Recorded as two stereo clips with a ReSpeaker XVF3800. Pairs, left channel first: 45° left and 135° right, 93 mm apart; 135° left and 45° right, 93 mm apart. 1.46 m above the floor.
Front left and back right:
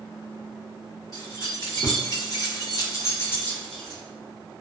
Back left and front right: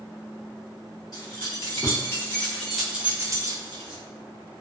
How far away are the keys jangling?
About 1.2 m.